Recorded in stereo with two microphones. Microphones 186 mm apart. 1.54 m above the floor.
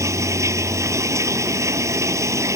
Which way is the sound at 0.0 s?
15° right (ahead or behind).